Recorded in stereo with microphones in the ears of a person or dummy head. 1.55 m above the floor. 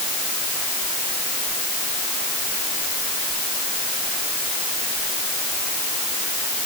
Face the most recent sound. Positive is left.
No sound to turn to.